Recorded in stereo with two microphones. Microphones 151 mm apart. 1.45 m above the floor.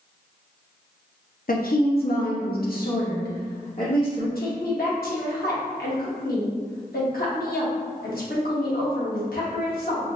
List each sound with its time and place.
1.5 s a woman speaking: 70° left (ahead or behind), 0.7 m
4.3 s a woman speaking: 80° left, 1.4 m